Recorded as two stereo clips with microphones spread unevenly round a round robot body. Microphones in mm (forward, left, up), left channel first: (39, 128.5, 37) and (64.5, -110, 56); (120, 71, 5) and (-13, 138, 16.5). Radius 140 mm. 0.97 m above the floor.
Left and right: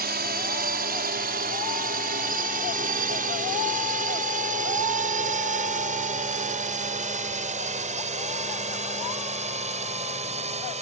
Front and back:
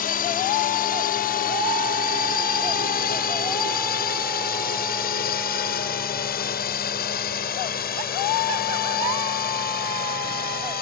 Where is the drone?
35° right; by 10.8 s 20° right.